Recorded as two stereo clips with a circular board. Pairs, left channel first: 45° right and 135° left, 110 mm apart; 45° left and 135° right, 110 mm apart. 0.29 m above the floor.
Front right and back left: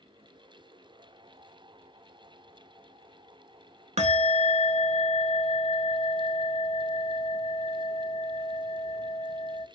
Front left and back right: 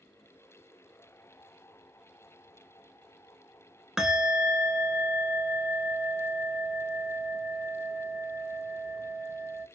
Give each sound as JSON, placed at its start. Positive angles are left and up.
{"t": 4.0, "sound": "a bell", "azimuth_deg": 140, "distance_m": 0.6}